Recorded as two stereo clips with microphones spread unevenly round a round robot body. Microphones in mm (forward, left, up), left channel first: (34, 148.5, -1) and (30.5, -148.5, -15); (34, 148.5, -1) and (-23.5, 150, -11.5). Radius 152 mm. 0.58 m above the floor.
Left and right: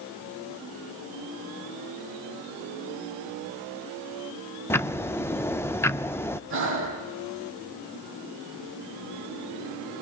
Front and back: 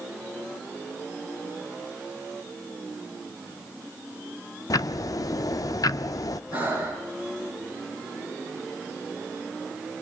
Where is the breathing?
40° right, 6.5 m.